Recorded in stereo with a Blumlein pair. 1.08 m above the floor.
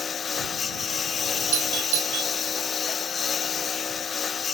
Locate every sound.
0.0 s a lawn mower: 20° left
1.5 s a doorbell: 50° right